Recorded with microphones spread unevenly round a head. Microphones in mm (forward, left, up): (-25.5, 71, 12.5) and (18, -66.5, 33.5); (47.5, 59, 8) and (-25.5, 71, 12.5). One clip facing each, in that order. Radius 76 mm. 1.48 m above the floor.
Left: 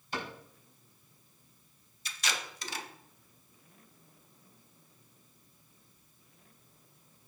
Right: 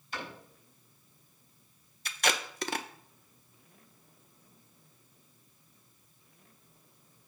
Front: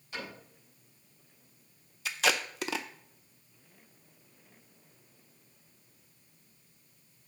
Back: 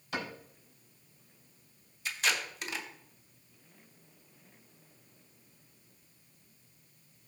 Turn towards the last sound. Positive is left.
turn(degrees=-30)